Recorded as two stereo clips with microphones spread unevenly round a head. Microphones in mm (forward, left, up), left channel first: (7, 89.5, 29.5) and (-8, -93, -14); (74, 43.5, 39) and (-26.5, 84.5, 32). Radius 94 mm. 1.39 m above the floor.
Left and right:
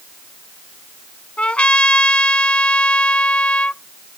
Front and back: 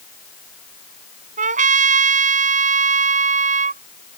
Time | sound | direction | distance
1.4 | a trumpet | 170° left | ?